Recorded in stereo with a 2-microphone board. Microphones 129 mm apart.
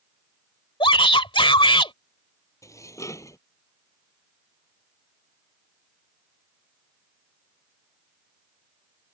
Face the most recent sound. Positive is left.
turn(degrees=25)  # may be behind; listen again after turning